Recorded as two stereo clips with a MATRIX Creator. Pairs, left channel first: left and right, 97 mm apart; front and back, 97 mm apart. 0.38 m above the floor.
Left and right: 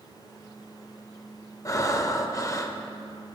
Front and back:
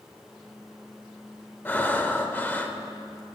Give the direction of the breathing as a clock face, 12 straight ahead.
10 o'clock.